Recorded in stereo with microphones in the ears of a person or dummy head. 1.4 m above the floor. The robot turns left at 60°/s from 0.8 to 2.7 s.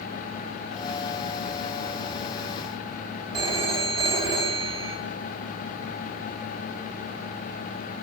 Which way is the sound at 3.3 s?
30° right (ahead or behind).